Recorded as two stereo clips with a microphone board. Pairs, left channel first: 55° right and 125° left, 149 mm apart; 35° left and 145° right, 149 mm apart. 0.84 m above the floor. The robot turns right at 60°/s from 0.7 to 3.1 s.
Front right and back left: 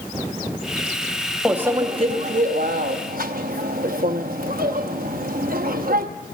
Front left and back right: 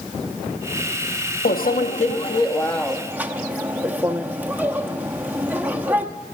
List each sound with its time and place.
1.4 s a microwave: 40° left, 0.7 m; by 6.0 s 135° left, 0.7 m